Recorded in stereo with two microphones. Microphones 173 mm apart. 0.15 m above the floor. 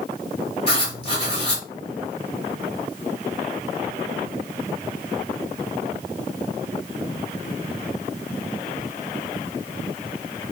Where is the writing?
35° left (ahead or behind), 2 m.